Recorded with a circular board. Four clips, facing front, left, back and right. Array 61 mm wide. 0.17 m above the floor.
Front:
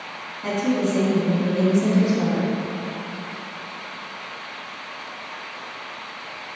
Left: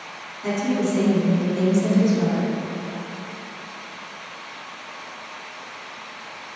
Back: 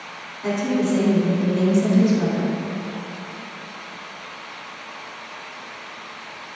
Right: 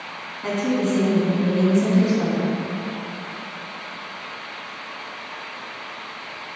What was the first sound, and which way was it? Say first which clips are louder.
A woman speaking: right 1 dB, back 1 dB; 60° right.